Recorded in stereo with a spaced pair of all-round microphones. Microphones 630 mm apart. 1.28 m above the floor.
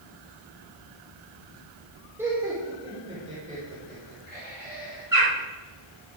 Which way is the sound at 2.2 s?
5° right (ahead or behind).